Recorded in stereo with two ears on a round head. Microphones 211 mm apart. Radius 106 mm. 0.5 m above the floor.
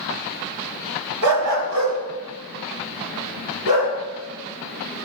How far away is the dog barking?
About 1.4 m.